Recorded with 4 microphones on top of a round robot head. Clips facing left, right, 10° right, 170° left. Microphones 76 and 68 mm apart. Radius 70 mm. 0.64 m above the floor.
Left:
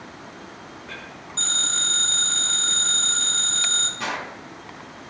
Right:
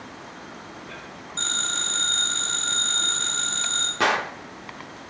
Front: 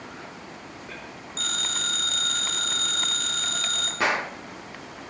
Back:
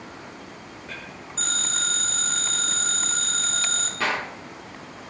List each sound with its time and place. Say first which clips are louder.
1.4 s a phone ringing: right 1 dB, back 1 dB; 5° right, 4 m
4.0 s a gunshot: right 8 dB, front 2 dB; 85° right, 0.5 m